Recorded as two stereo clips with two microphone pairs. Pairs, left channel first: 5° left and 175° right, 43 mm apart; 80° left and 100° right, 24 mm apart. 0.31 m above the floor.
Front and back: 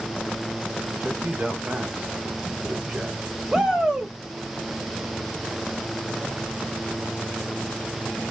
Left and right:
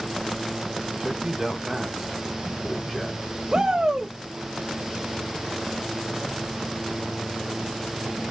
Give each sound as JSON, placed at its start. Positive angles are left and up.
{"t": 1.0, "sound": "a man speaking", "azimuth_deg": -145, "distance_m": 1.3}
{"t": 3.5, "sound": "a shout", "azimuth_deg": -115, "distance_m": 1.0}